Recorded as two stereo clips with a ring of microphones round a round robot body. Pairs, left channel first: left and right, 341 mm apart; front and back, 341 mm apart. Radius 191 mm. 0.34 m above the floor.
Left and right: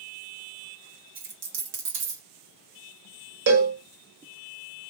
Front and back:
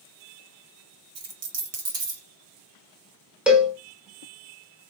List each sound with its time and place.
1.1 s a dropped coin: 130° right, 1.2 m
3.5 s a cowbell: 95° right, 1.0 m